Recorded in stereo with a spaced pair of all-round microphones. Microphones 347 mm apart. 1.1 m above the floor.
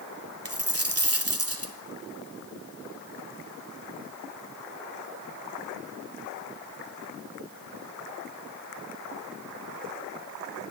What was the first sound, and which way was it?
A dropped coin, 40° right (ahead or behind).